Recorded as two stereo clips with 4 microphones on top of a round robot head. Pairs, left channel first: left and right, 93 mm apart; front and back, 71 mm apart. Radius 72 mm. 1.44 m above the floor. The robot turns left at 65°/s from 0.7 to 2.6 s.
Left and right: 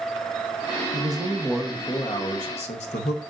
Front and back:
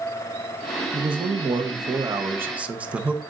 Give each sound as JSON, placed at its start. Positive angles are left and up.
{"t": 0.9, "sound": "a man speaking", "azimuth_deg": -140, "distance_m": 1.1}